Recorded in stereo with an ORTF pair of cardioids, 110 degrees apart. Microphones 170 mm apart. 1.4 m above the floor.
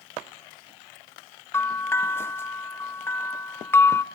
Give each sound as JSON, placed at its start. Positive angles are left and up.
{"t": 1.5, "sound": "a bell", "azimuth_deg": 15, "distance_m": 0.8}